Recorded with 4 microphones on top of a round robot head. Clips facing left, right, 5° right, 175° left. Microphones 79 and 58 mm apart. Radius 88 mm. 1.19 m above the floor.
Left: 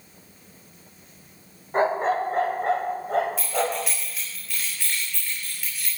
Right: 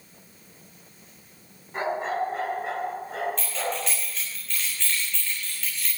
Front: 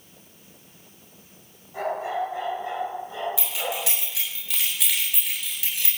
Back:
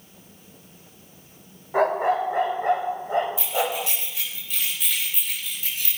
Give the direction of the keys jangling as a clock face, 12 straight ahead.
12 o'clock.